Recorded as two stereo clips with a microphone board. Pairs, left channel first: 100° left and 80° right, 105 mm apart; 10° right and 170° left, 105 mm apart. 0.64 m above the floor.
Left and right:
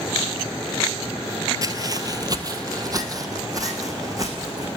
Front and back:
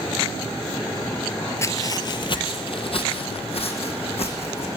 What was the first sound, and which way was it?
Footsteps, 50° right.